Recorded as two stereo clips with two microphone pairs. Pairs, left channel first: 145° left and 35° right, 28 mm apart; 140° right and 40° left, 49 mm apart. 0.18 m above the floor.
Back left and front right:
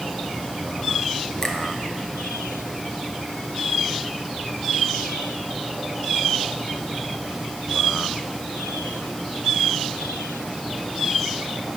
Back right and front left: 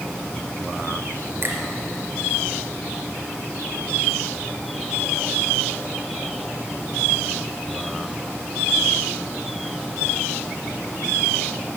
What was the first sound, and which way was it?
A finger snap, 70° left.